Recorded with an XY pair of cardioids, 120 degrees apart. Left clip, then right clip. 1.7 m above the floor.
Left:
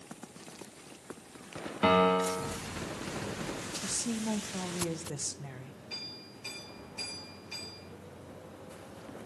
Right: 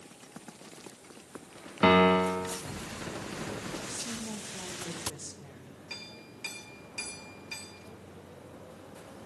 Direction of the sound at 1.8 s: 35° right.